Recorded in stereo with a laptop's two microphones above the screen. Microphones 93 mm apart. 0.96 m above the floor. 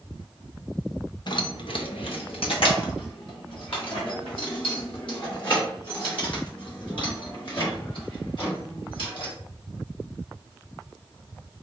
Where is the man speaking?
No man speaking in this recording.